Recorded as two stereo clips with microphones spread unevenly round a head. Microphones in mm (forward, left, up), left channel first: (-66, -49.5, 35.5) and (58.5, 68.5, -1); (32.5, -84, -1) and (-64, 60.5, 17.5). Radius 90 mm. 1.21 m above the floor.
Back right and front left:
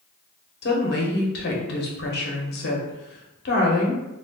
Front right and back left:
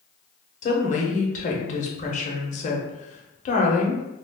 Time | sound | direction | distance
0.6 | a woman speaking | 100° right | 0.8 m